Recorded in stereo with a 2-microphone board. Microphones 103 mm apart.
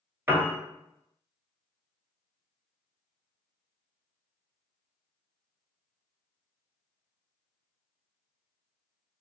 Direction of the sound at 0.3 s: 20° right (ahead or behind).